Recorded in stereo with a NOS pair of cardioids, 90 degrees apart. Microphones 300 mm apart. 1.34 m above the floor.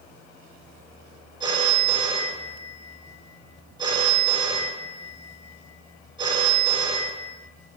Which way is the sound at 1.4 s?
15° right.